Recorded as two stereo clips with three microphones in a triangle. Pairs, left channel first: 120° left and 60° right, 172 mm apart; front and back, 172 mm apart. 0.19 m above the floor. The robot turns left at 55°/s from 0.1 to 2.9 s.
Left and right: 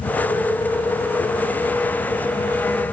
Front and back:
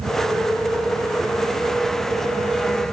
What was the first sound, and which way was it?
Only background noise.